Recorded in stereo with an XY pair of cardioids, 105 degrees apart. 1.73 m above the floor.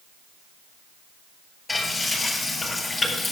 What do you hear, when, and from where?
1.7 s frying: 20° left, 8 m